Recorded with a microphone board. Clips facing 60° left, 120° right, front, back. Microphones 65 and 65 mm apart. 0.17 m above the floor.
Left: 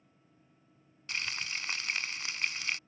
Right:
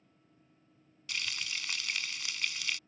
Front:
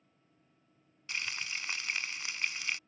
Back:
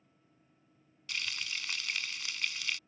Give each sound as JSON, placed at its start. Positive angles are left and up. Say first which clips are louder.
{"t": 1.1, "sound": "frying", "louder": "left 2 dB, front 1 dB", "azimuth_deg": 40}